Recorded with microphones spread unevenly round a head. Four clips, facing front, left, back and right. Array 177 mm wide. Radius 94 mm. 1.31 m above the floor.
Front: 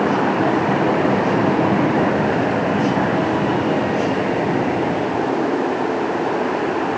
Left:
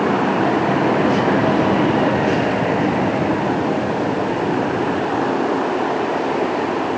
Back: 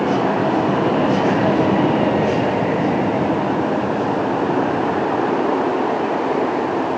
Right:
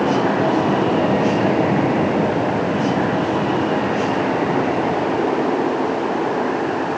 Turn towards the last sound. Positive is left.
No sound to turn to.